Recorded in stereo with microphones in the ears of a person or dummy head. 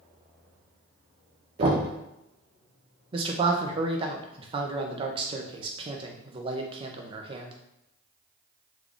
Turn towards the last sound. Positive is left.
turn(degrees=-30)  # may be behind; listen again after turning